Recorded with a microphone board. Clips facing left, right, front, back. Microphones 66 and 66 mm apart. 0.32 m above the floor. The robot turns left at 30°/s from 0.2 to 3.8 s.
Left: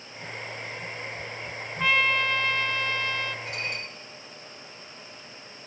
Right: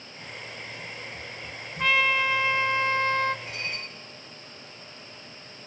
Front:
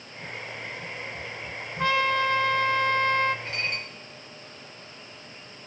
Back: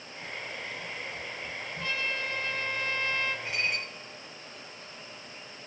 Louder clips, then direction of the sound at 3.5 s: Left 2 dB, even; 110° left.